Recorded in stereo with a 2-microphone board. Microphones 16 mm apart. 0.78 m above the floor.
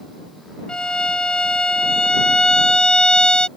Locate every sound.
0.7 s a violin: 75° left (ahead or behind)